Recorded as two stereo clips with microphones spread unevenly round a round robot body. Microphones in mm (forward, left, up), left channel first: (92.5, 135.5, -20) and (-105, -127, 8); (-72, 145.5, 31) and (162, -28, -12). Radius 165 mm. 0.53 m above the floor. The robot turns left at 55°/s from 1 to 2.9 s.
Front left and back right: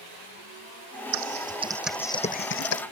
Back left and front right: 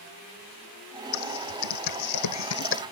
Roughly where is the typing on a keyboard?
Behind.